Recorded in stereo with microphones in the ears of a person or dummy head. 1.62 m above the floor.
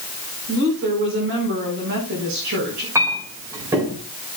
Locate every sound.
0.5 s a woman speaking: 60° right (ahead or behind), 4.5 m
3.0 s a clink: 15° right (ahead or behind), 4 m